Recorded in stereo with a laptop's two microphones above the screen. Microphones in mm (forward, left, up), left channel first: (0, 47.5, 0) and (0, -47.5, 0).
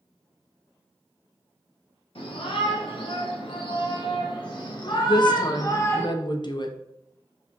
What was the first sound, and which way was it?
A shout, 75° left (ahead or behind).